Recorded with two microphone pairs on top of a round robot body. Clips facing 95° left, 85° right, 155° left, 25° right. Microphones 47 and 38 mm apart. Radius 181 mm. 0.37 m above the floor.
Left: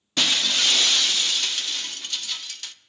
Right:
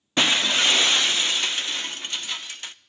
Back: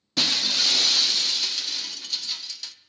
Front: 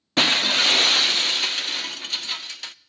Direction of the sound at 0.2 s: 30° right.